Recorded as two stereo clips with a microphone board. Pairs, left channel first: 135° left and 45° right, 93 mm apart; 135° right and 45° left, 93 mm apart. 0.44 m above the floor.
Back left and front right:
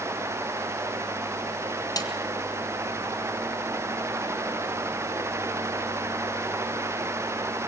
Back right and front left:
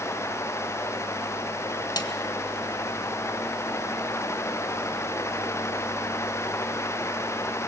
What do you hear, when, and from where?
2.0 s a snare drum: straight behind, 1.9 m